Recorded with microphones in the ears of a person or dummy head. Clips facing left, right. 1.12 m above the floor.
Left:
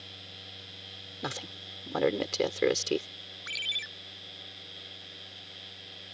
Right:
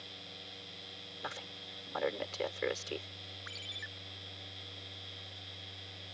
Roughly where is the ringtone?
Left.